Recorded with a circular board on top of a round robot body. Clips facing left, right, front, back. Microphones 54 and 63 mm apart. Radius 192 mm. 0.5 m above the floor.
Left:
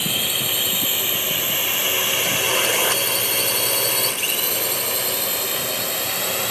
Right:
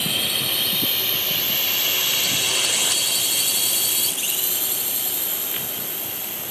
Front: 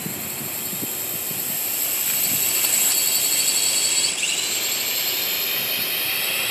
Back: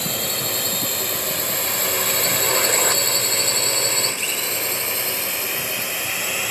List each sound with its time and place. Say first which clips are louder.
0.0 s a drone: even, back 6 dB; 175° left; by 6.5 s 105° left